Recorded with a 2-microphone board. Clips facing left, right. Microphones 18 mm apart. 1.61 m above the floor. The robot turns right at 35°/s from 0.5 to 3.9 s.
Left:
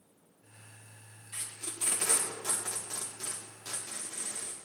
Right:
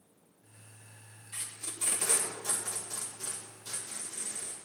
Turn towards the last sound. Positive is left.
turn(degrees=110)